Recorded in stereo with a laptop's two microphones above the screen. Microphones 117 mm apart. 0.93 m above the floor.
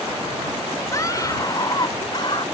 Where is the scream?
30° left (ahead or behind); by 2.5 s 45° left (ahead or behind).